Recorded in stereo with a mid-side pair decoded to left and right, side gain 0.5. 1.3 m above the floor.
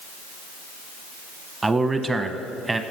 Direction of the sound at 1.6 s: 20° right.